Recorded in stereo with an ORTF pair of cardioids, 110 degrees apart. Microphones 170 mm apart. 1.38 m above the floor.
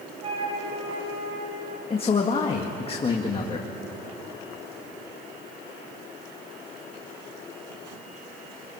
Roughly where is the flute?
Ahead right.